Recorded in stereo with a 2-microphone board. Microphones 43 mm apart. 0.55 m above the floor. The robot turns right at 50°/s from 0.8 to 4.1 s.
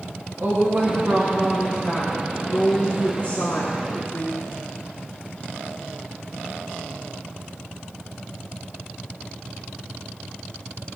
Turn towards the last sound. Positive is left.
turn(degrees=95)